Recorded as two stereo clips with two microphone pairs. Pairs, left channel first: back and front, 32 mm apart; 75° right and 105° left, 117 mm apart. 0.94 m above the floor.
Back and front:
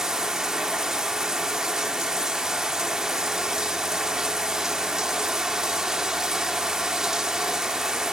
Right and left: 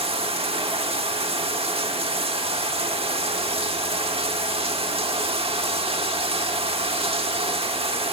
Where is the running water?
75° left, 1.1 m.